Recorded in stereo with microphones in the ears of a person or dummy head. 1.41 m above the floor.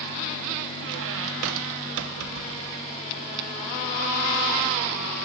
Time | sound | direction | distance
0.8 | a squeak | 70° right (ahead or behind) | 1.0 m